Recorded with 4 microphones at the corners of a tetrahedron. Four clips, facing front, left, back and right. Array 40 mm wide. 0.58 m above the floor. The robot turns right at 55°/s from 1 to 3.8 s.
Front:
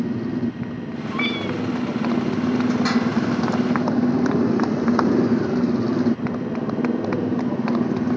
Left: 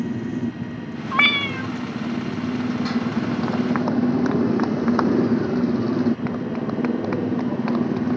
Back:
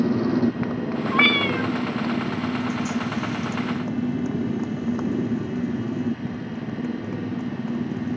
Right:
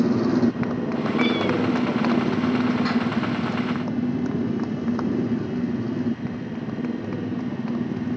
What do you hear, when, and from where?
0.0 s a motorcycle: 115° right; by 8.2 s 35° left
1.1 s a cat meowing: 120° left; by 1.7 s 150° left